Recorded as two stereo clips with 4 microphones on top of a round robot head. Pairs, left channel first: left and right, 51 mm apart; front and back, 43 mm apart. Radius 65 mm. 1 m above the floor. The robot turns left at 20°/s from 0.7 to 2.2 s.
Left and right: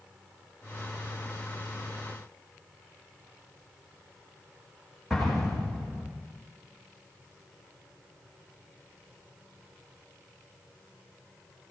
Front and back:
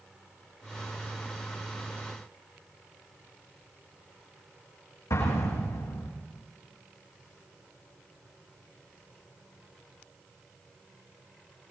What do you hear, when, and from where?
5.1 s an explosion: 5° right, 9 m